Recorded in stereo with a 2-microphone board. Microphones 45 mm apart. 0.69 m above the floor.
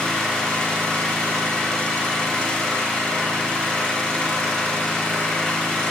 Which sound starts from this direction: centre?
An engine running, at 0.0 s.